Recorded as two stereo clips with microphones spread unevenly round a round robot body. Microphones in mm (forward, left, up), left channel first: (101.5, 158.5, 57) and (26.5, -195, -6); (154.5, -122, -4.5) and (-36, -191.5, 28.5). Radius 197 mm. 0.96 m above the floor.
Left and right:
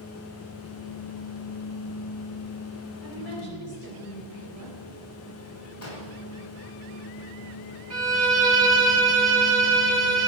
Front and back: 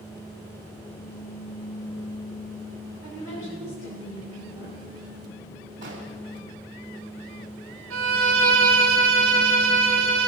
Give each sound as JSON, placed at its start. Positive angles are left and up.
{"t": 3.0, "sound": "a woman speaking", "azimuth_deg": 50, "distance_m": 5.0}
{"t": 5.8, "sound": "an explosion", "azimuth_deg": 130, "distance_m": 2.0}
{"t": 7.9, "sound": "a violin", "azimuth_deg": 170, "distance_m": 2.0}